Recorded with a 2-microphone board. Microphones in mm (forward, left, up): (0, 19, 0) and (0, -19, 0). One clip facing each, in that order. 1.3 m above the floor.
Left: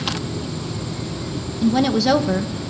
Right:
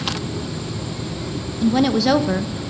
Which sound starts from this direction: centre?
A woman speaking, at 1.6 s.